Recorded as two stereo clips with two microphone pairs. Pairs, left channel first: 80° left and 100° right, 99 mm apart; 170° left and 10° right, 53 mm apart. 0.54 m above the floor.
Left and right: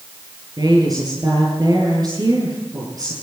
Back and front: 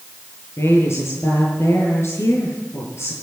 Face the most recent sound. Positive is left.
turn(degrees=-150)